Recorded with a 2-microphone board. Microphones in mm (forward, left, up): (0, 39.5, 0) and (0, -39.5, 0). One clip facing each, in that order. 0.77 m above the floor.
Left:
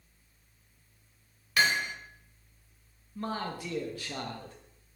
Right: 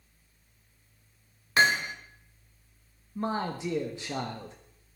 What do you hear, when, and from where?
1.6 s hammering: 30° right (ahead or behind), 1.3 m
3.1 s a man speaking: 20° right (ahead or behind), 1.0 m